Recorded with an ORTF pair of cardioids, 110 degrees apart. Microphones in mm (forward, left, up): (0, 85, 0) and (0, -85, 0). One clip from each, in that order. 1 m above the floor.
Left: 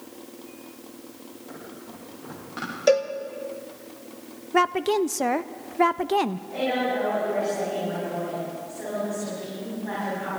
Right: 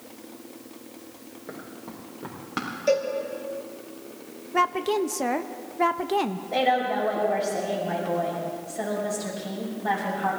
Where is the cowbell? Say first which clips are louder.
Left 3 dB; 50° left, 1.7 m.